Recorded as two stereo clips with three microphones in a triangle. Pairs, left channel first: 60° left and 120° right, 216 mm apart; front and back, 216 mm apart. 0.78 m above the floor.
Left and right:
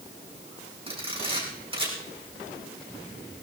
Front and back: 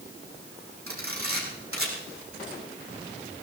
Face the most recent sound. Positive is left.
turn(degrees=175)